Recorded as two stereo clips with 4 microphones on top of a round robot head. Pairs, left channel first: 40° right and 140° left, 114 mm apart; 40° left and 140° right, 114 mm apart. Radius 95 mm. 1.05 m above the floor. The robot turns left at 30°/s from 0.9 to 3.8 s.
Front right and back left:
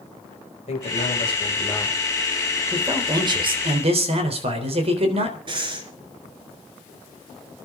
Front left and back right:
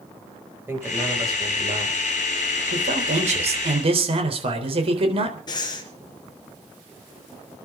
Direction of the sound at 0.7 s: 70° right.